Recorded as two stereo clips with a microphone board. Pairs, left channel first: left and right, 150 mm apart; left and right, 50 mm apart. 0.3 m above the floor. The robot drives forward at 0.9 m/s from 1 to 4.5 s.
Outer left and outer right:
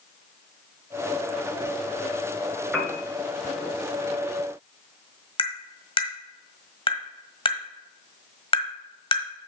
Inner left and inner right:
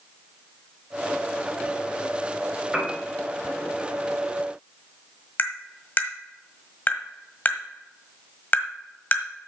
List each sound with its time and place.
2.7 s a piano: 5° right (ahead or behind), 2.5 m
5.4 s tapping: 35° left (ahead or behind), 1.5 m